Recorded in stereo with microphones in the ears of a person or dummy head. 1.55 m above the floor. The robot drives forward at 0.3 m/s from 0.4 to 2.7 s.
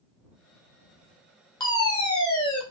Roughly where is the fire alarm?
Left.